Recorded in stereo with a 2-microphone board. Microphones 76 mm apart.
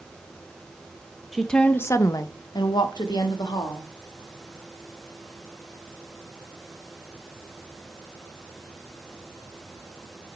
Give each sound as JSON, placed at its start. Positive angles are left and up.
{"t": 1.3, "sound": "a woman speaking", "side_deg": -5, "distance_m": 0.5}